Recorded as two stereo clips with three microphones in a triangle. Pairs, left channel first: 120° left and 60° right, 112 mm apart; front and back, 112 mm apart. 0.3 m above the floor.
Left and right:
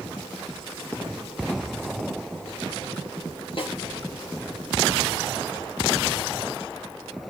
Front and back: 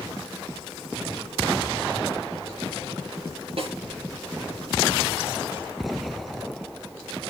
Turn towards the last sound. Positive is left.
turn(degrees=155)